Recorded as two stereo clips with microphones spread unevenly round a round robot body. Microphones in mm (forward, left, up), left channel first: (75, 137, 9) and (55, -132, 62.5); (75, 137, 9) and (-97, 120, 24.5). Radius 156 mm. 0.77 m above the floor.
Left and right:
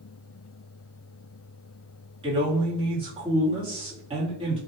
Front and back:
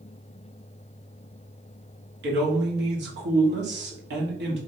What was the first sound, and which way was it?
A man speaking, 170° right.